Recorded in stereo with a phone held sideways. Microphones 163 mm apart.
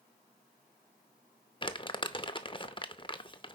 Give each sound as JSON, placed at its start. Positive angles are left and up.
{"t": 1.6, "sound": "crumpling", "side_deg": 30, "distance_m": 0.6}